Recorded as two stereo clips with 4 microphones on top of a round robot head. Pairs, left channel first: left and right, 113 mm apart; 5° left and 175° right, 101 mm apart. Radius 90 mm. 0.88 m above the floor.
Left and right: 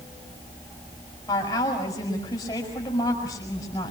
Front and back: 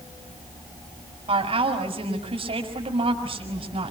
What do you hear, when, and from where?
1.3 s a woman speaking: 155° left, 5.5 m